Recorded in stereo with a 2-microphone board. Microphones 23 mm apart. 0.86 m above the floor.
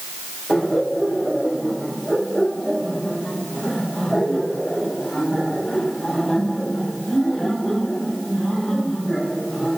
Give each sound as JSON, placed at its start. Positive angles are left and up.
{"t": 0.5, "sound": "laughter", "side_deg": 10, "distance_m": 5.0}